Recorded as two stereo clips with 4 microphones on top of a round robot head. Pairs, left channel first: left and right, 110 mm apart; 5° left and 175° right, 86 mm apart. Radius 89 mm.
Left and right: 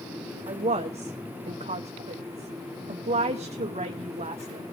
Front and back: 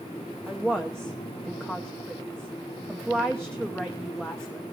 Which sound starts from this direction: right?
A woman speaking, at 0.5 s.